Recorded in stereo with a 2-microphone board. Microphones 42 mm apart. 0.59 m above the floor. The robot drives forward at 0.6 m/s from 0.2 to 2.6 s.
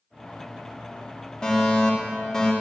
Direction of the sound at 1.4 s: 20° left (ahead or behind).